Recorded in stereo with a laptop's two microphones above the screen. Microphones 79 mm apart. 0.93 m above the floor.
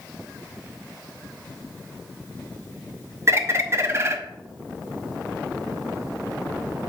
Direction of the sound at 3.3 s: 35° right (ahead or behind).